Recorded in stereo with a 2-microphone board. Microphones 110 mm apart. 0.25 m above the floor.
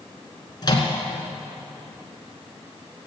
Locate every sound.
0.6 s a microwave: 40° left (ahead or behind), 2.5 m